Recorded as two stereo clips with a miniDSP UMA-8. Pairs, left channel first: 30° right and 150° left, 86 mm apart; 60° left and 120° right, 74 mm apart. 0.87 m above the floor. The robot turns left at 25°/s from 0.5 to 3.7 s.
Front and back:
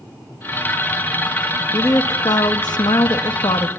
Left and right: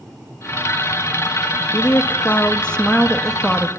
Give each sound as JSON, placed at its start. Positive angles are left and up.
{"t": 1.7, "sound": "a woman speaking", "azimuth_deg": 10, "distance_m": 0.7}